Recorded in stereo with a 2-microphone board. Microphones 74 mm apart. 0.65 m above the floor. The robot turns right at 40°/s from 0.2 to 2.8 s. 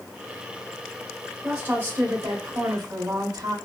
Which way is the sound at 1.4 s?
165° right.